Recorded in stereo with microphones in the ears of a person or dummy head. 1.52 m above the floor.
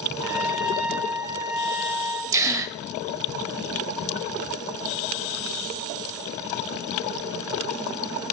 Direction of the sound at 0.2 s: 25° right (ahead or behind).